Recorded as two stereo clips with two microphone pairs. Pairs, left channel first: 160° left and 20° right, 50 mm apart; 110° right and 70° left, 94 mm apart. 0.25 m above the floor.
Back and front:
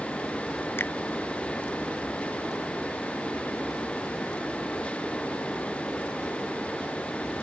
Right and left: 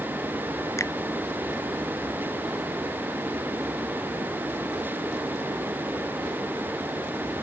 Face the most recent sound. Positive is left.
turn(degrees=-165)